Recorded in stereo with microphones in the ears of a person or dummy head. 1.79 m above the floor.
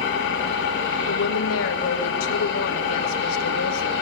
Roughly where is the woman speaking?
Left.